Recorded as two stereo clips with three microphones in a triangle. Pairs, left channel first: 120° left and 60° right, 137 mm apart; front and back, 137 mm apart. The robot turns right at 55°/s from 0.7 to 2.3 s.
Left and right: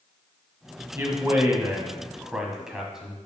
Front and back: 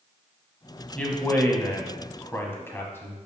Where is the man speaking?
60° right, 1.3 m; by 3.2 s 15° left, 1.3 m.